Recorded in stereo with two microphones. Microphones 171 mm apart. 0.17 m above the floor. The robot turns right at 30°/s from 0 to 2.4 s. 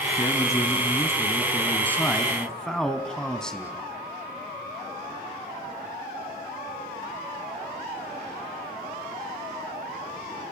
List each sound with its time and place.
0.2 s a man speaking: 20° left (ahead or behind), 1.7 m; by 3.9 s 5° left (ahead or behind), 1.7 m